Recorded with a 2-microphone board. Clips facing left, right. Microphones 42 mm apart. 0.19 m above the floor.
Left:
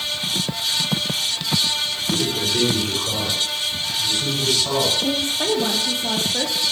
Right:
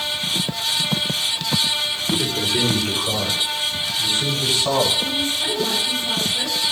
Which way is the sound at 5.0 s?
75° left (ahead or behind).